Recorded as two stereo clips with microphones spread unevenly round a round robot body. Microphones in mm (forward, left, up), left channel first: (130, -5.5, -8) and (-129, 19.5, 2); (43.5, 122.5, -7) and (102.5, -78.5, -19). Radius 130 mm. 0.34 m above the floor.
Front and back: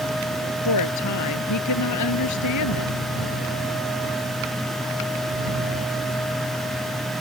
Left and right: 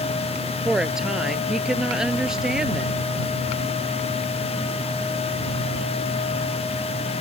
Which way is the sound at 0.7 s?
15° left.